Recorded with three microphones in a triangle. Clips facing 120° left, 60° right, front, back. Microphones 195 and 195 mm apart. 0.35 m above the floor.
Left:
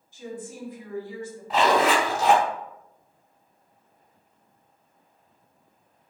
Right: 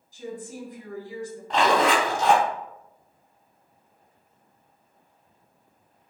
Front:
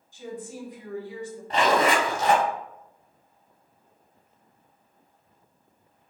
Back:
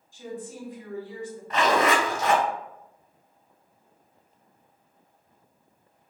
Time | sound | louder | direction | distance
0.1 | a woman speaking | right 1 dB, even | 50° right | 1.7 m
1.5 | a zipper | even, front 1 dB | 35° left | 0.7 m